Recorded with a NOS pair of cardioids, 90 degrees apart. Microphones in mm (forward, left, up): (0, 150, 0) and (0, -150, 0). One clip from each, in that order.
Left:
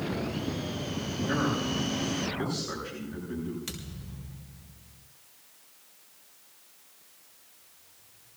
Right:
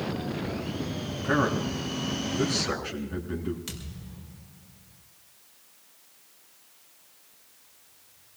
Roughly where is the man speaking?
Ahead right.